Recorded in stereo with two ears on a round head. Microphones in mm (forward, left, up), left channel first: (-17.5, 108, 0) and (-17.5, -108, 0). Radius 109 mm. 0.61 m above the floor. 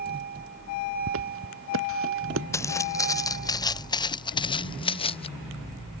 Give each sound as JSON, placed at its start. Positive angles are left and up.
{"t": 1.1, "sound": "footsteps", "side_deg": -65}
{"t": 2.5, "sound": "footsteps", "side_deg": 15}